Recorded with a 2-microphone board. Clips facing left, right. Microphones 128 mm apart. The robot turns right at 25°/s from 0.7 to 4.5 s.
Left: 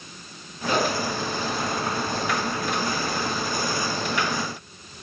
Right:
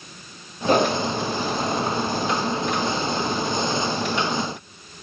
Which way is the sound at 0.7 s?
45° right (ahead or behind).